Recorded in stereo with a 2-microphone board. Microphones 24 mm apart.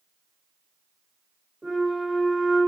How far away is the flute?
About 1.5 m.